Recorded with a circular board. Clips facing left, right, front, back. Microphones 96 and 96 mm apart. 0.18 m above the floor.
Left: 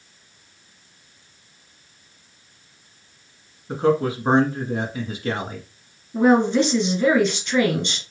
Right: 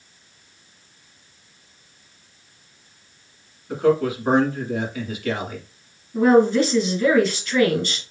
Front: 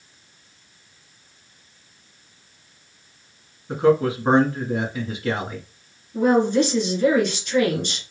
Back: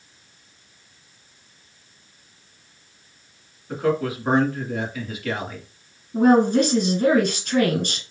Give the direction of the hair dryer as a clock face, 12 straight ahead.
I don't hear a hair dryer.